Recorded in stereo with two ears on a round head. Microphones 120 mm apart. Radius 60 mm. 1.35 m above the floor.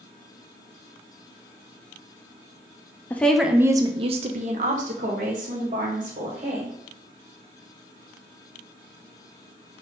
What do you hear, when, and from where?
3.1 s a woman speaking: 15° left (ahead or behind), 0.6 m; by 6.8 s 60° right (ahead or behind), 1.9 m